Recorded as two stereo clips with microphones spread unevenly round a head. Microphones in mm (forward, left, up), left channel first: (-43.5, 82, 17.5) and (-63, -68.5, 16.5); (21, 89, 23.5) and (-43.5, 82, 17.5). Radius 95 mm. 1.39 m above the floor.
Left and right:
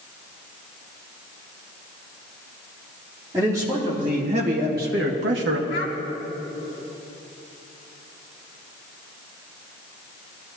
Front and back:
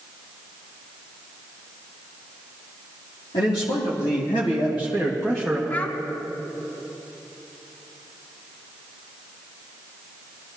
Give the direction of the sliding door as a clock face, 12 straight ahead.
No sliding door in this recording.